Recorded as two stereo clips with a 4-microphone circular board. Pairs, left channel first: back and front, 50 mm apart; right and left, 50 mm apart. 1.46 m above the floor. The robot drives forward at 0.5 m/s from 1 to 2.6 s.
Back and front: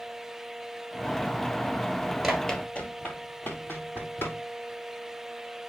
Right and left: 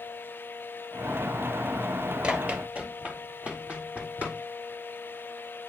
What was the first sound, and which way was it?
Running footsteps, 80° left.